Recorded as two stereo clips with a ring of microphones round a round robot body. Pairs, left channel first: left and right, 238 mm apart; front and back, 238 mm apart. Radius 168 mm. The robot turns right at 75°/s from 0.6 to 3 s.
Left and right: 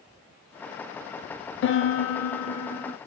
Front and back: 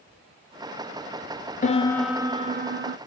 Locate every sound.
1.6 s a piano: 55° left, 0.7 m; by 3.0 s 160° left, 0.7 m